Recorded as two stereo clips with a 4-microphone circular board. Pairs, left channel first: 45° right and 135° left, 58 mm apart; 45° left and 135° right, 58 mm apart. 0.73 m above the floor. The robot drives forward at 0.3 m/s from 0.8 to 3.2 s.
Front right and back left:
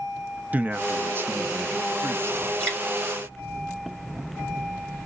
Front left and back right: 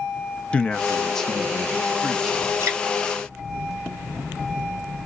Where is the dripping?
170° right, 2.5 m.